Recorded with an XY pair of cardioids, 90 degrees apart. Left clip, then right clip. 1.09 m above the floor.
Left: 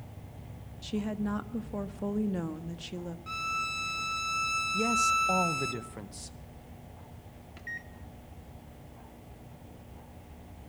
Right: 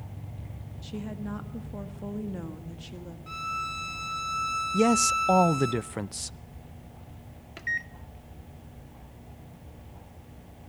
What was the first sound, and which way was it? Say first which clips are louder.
A woman speaking: left 4 dB; 35° left.